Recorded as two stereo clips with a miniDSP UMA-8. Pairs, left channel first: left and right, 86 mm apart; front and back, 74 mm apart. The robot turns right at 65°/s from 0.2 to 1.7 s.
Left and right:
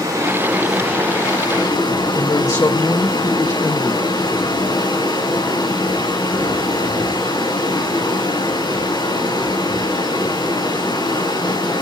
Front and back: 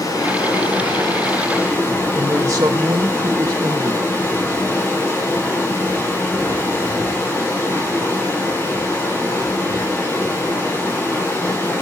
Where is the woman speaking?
140° left, 1.2 m.